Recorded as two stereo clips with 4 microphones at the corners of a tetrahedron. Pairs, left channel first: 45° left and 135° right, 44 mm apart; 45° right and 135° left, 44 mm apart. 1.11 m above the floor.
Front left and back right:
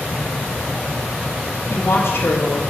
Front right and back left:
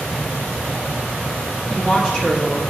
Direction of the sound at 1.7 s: 25° left.